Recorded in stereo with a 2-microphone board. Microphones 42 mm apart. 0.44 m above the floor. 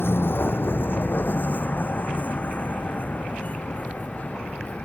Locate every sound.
0.0 s a vehicle: 60° left (ahead or behind); by 4.8 s 30° left (ahead or behind)